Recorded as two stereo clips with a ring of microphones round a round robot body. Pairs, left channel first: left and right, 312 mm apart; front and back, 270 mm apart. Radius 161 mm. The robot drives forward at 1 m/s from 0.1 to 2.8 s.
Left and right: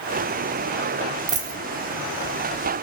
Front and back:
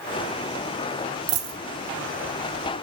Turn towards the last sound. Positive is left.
turn(degrees=-170)